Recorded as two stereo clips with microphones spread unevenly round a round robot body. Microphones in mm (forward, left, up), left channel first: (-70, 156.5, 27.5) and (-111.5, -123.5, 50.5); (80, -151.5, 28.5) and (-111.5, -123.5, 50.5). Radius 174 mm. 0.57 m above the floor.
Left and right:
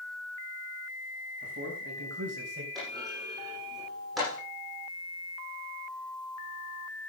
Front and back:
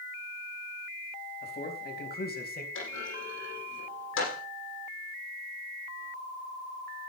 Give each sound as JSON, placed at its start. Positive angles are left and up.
{"t": 1.4, "sound": "a man speaking", "azimuth_deg": -40, "distance_m": 4.5}
{"t": 2.8, "sound": "a clunk", "azimuth_deg": -10, "distance_m": 9.0}